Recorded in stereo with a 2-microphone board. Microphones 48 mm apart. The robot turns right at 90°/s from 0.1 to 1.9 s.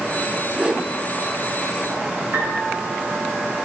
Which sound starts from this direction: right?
A piano, at 2.3 s.